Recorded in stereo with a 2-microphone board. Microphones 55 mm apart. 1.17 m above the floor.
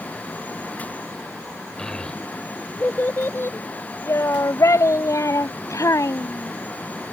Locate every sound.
1.8 s a child speaking: 10° left (ahead or behind); by 6.5 s 85° left